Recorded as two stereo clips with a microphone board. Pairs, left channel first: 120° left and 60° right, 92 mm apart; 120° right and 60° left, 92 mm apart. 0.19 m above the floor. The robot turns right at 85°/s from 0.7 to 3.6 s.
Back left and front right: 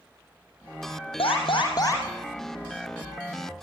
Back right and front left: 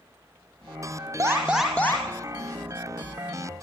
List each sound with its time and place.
1.2 s an alarm: 115° left, 5 m; by 2.0 s 175° right, 5 m